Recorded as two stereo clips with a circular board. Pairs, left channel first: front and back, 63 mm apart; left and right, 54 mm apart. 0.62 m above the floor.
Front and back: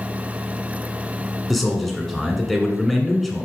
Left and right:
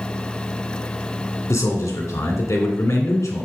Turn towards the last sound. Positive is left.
turn(degrees=95)